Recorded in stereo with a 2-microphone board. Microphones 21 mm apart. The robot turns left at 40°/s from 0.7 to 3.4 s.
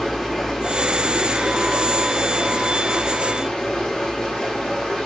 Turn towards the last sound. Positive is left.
turn(degrees=50)